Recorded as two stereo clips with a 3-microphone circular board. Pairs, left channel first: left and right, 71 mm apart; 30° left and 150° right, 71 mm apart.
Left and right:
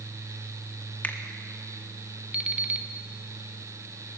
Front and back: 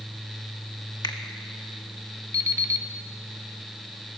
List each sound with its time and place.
1.0 s a finger snap: 25° left, 1.0 m
2.3 s an alarm clock: 160° right, 0.8 m